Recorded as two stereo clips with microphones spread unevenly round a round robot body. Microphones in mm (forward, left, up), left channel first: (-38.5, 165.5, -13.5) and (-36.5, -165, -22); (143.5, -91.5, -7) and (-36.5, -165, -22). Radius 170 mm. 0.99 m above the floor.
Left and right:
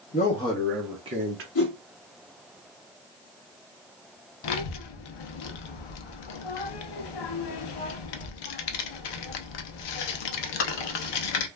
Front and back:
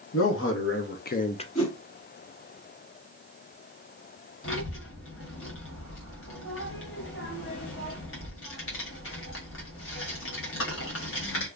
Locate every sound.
0.1 s a man speaking: 20° left, 1.0 m; by 1.4 s 40° right, 0.7 m
1.6 s a whoosh: 60° left, 1.8 m
4.4 s a child speaking: 70° left, 0.6 m